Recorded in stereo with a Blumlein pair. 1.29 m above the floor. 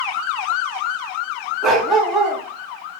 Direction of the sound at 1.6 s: 20° right.